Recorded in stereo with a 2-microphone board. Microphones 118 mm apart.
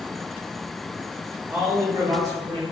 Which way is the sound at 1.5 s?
10° right (ahead or behind).